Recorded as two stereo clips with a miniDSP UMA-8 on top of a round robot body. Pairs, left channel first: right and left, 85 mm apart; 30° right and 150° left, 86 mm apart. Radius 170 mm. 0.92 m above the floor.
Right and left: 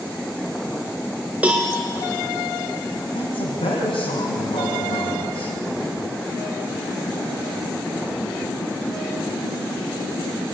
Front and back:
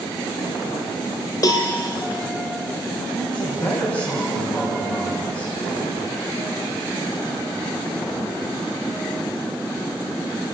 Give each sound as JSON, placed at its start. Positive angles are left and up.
{"t": 1.4, "sound": "a cowbell", "azimuth_deg": 15, "distance_m": 0.8}
{"t": 3.1, "sound": "a man speaking", "azimuth_deg": -95, "distance_m": 7.0}